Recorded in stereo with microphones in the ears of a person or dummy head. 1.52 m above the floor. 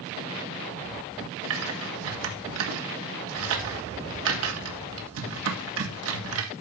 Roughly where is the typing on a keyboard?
Right.